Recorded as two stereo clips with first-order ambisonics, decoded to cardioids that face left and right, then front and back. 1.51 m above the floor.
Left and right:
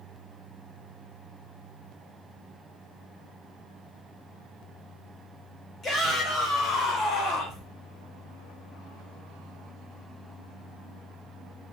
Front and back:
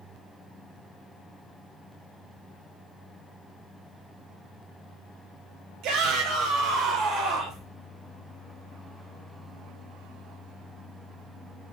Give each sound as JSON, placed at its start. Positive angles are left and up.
{"t": 5.8, "sound": "a shout", "azimuth_deg": 155, "distance_m": 4.5}